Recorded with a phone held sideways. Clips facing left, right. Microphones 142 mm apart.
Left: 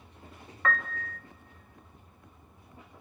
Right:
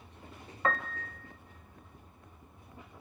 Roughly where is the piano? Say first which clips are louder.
Left 1 dB; right.